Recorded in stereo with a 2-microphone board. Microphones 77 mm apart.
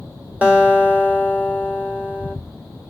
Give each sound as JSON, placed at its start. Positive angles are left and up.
{"t": 0.4, "sound": "a guitar", "side_deg": -20, "distance_m": 1.7}